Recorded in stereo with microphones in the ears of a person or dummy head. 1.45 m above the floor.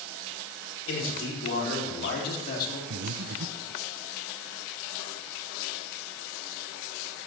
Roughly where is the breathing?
Right.